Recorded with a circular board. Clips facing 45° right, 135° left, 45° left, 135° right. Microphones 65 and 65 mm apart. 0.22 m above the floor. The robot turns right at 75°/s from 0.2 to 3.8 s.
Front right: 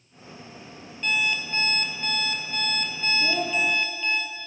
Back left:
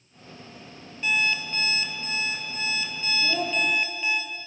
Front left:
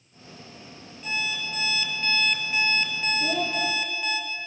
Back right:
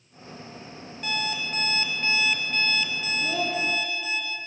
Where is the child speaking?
5° right, 4 m; by 3.6 s 20° left, 4 m.